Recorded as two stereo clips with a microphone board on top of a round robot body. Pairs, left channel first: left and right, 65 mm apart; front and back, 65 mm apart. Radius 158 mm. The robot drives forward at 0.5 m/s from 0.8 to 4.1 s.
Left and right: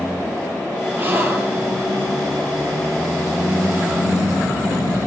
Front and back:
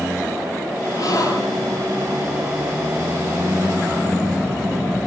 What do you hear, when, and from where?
1.0 s a gasp: 30° right, 9 m